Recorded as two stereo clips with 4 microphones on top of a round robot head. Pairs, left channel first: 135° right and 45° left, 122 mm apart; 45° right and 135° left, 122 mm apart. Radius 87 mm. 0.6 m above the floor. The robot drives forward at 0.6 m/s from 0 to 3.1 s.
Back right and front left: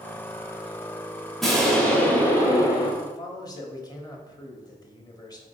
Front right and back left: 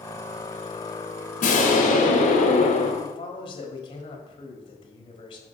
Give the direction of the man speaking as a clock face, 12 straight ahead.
3 o'clock.